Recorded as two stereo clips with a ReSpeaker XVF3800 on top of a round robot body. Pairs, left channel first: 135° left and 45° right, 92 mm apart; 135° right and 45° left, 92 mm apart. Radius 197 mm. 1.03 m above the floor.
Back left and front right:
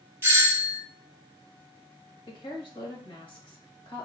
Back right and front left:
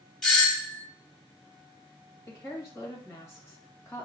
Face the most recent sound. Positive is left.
turn(degrees=165)